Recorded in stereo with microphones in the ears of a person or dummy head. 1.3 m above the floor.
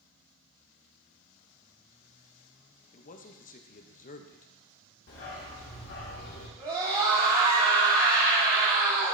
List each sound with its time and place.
2.9 s a man speaking: 40° left (ahead or behind), 0.6 m
5.1 s a dog barking: 60° left (ahead or behind), 1.4 m
6.6 s a scream: 25° right (ahead or behind), 2.5 m